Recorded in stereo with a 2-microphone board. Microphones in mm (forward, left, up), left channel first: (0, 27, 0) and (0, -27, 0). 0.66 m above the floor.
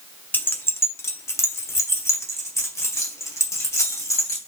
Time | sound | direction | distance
0.3 | keys jangling | 35° left (ahead or behind) | 0.6 m